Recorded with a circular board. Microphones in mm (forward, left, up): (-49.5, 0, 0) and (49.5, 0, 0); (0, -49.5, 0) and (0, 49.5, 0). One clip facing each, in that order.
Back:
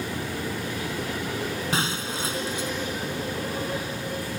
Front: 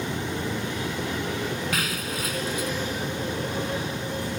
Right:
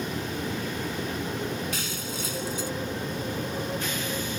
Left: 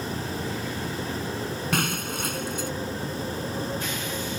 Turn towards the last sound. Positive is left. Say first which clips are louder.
# back 1 dB, left 6 dB
turn(degrees=120)